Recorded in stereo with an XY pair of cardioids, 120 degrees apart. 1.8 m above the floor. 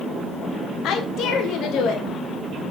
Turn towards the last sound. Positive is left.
turn(degrees=70)